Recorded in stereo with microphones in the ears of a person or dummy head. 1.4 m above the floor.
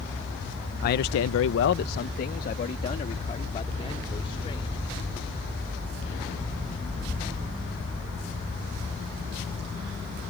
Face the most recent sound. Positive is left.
turn(degrees=30)  # may be behind; listen again after turning